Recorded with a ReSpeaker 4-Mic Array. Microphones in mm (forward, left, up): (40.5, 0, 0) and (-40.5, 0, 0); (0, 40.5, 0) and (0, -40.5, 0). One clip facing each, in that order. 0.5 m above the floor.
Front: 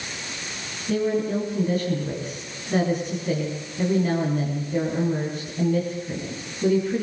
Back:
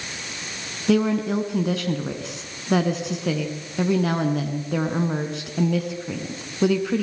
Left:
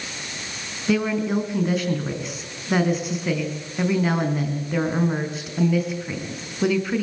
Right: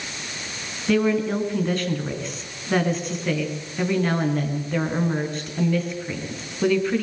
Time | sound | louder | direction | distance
0.9 | a woman speaking | back 3 dB, right 1 dB | 175° left | 4.5 m